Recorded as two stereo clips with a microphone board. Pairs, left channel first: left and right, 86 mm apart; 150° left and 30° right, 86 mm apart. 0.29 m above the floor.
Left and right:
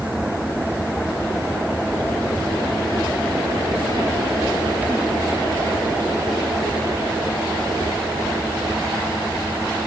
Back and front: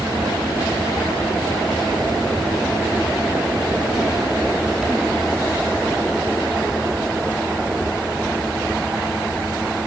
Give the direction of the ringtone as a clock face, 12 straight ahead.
No ringtone in this recording.